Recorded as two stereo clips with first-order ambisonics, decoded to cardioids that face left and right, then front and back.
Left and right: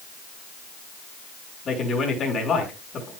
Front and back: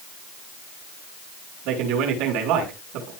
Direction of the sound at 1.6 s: 155° left.